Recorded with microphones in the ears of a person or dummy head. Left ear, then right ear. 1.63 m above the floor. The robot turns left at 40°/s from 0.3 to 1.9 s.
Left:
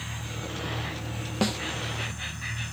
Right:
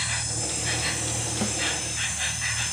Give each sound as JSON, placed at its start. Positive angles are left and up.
{"t": 0.0, "sound": "an insect", "azimuth_deg": -80}
{"t": 1.4, "sound": "a snare drum", "side_deg": 20}